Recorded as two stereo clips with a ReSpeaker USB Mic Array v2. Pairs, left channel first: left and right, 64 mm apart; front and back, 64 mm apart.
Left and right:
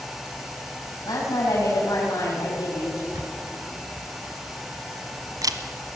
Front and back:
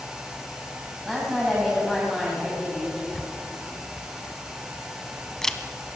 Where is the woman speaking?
90° left, 4 m.